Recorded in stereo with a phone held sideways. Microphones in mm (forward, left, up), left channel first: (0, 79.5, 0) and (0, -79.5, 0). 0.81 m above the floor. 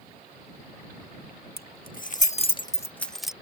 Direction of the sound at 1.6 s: 75° left (ahead or behind).